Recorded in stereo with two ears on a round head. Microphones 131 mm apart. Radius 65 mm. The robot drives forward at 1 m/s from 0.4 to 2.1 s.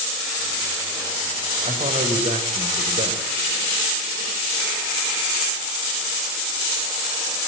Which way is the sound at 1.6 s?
40° right (ahead or behind).